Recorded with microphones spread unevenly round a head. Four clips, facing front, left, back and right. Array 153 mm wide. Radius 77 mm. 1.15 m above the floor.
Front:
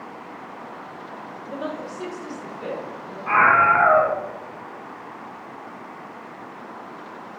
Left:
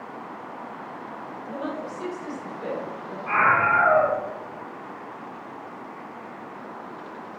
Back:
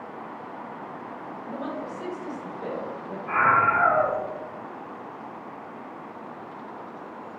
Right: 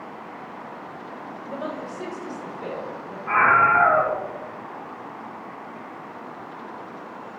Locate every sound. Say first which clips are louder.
1.4 s a woman speaking: even, front 3 dB; 20° right, 4 m; by 3.2 s 5° right, 5.5 m
3.3 s a scream: right 3 dB, front 5 dB; straight ahead, 1.4 m